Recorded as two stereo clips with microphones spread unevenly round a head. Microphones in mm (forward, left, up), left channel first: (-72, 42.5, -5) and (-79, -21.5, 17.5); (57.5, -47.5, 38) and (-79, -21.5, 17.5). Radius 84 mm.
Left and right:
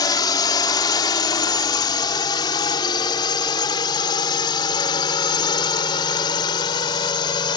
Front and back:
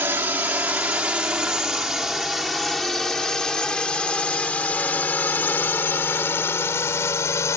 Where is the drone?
90° left; by 7.6 s 65° left.